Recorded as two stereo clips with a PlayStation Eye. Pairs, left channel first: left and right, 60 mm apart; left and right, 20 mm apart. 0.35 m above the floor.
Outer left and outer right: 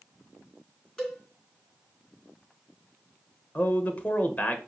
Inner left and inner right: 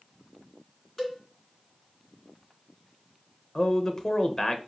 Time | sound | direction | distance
1.0 | a cowbell | 10° left (ahead or behind) | 2.5 m
3.5 | a man speaking | 30° left (ahead or behind) | 0.9 m